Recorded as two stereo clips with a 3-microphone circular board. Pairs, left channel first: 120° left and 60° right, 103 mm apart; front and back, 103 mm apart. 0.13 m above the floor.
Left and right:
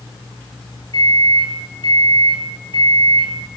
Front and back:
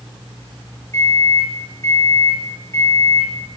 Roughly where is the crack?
I don't hear a crack.